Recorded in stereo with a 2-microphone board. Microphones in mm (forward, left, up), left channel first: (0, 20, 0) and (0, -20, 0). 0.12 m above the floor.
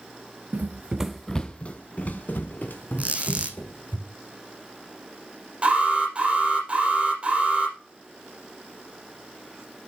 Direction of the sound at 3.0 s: 35° right (ahead or behind).